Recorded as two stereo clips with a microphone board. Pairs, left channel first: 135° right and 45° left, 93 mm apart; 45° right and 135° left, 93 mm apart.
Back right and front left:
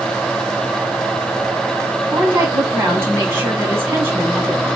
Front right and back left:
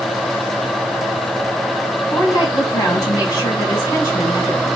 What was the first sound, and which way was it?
A woman speaking, 15° right.